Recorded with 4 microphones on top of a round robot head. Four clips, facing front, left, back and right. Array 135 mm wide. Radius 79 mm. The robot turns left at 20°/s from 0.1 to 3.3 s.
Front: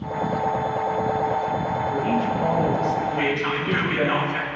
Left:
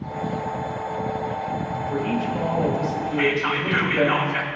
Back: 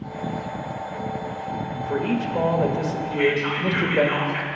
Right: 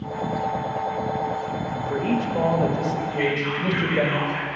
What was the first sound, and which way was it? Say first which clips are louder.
A man speaking: right 2 dB, back 1 dB; 125° right.